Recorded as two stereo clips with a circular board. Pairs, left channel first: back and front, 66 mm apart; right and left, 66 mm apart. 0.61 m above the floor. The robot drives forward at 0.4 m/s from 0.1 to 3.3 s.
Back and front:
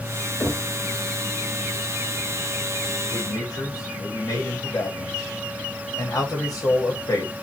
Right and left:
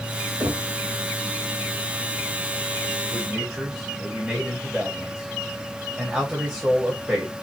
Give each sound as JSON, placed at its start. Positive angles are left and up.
{"t": 0.4, "sound": "knocking", "azimuth_deg": 120, "distance_m": 2.5}
{"t": 3.1, "sound": "a man speaking", "azimuth_deg": 160, "distance_m": 3.0}